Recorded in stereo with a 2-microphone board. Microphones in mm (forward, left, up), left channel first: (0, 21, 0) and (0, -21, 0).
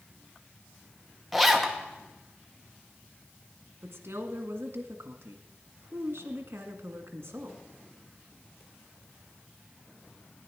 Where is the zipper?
Centre (ahead or behind), 1.1 m.